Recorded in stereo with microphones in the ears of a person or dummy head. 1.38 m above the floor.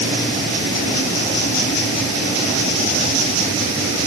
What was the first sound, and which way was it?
Only background noise.